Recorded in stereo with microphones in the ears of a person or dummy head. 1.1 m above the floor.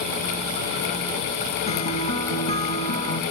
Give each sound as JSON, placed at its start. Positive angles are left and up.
{"t": 1.7, "sound": "a guitar", "side_deg": 35, "distance_m": 2.5}